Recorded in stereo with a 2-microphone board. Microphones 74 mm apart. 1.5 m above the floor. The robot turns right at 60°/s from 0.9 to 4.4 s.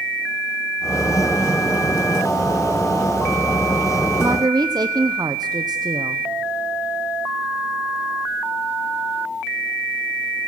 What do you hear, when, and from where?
4.2 s a woman speaking: 60° right (ahead or behind), 0.9 m; by 6.2 s 70° right (ahead or behind), 0.9 m